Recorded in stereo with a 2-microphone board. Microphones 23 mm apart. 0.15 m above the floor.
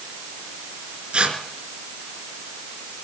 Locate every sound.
1.1 s tearing paper: 50° right (ahead or behind), 2.5 m